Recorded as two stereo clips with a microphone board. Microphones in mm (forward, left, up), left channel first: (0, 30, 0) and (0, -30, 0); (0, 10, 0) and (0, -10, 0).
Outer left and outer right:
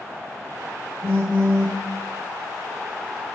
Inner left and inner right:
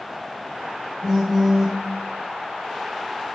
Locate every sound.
1.0 s a phone buzzing: 35° right (ahead or behind), 1.6 m